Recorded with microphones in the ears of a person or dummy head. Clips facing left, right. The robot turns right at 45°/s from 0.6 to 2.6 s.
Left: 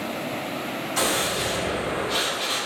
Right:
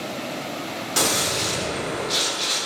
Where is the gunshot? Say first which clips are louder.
Right 1 dB; 90° right, 1.4 m; by 2.7 s 15° right, 1.4 m.